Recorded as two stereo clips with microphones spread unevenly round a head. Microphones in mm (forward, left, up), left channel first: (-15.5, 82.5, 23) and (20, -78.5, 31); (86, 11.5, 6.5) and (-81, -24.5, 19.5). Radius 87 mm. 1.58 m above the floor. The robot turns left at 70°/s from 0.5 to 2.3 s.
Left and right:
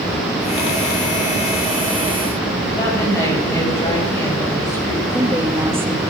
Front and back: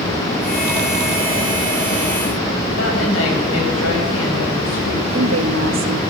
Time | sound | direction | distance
2.8 | a woman speaking | 30° left | 9.5 m
5.1 | a woman speaking | 155° right | 2.5 m